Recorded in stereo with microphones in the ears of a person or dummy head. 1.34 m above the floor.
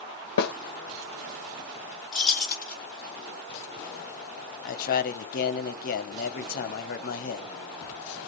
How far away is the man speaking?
About 0.7 m.